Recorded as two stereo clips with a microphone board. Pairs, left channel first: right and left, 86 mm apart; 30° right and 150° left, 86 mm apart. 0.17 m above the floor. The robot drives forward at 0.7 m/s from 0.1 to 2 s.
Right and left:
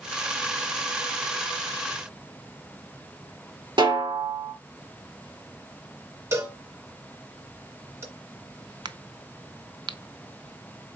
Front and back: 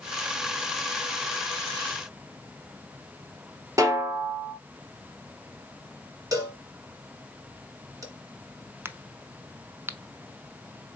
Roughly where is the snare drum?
Left.